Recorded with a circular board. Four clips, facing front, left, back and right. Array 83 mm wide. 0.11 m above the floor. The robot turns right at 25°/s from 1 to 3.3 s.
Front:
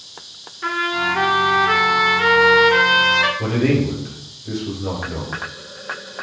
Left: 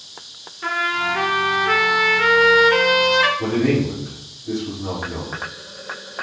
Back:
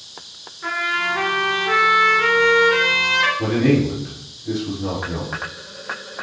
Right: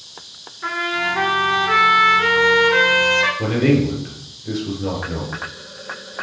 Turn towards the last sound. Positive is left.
turn(degrees=-95)